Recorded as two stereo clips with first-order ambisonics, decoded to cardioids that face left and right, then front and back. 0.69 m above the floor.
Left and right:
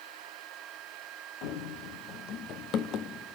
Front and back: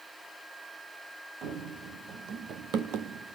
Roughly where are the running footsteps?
Behind left.